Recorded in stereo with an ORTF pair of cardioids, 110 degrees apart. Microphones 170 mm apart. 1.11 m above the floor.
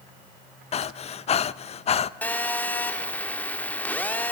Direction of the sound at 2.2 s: 10° left.